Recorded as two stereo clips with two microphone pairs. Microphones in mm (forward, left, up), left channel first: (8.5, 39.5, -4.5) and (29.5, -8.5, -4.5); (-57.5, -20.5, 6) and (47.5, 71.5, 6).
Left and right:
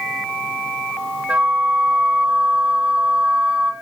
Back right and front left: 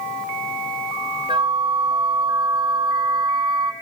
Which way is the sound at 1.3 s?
5° right.